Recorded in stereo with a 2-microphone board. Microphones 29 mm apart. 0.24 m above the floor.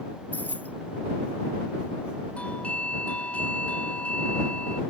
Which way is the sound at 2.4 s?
50° left (ahead or behind).